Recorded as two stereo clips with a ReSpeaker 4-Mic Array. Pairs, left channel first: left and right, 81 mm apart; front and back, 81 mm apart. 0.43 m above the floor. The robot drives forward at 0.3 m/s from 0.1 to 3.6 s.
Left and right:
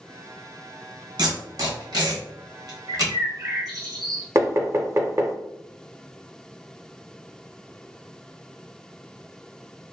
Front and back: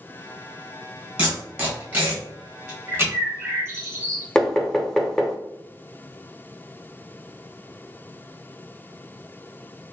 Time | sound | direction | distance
1.2 | tape being pulled | 105° right | 1.5 m
2.9 | a bird | 115° right | 1.6 m
4.3 | knocking | 80° right | 0.5 m